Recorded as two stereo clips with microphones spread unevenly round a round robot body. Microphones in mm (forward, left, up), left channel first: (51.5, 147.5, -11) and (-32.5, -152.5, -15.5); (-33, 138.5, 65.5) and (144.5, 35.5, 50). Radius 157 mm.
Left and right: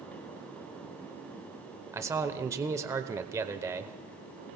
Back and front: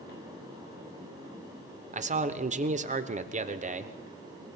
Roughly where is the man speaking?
Ahead right.